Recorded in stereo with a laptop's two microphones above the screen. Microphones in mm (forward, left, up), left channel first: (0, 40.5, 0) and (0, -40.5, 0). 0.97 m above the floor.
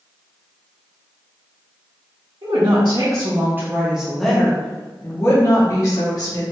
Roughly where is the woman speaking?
Right.